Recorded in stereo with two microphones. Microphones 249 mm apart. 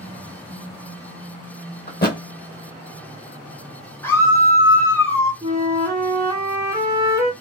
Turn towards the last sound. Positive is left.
turn(degrees=-15)  # may be behind; listen again after turning